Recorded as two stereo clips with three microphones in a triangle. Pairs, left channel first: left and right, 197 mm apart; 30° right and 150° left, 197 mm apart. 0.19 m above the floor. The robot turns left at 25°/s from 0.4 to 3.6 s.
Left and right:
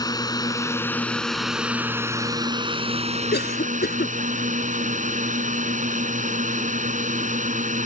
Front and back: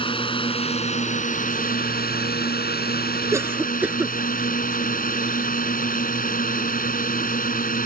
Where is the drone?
25° left; by 7.9 s 55° right.